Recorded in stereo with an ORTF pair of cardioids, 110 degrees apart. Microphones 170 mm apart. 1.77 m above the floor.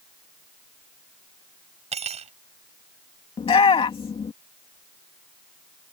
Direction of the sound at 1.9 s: 40° right.